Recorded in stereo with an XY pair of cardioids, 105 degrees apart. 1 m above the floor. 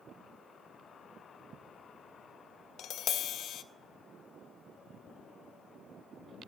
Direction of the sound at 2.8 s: 65° left.